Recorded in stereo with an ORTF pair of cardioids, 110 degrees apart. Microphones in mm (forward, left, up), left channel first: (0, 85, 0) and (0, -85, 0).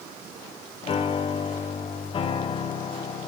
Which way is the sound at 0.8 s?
30° left.